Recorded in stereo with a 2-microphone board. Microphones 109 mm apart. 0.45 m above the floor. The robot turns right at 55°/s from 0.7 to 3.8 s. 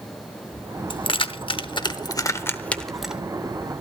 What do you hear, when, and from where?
0.9 s keys jangling: 45° left (ahead or behind), 0.7 m; by 3.2 s 10° right (ahead or behind), 0.7 m